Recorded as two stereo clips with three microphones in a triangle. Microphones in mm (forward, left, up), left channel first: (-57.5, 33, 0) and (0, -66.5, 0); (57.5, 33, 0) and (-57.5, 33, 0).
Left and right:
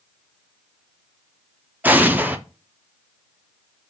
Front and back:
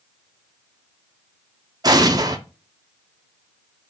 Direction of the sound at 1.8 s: 130° right.